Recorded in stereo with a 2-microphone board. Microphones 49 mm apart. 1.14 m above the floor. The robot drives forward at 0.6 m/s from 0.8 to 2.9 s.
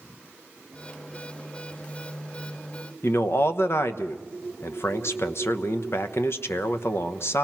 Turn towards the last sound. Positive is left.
turn(degrees=55)  # may be behind; listen again after turning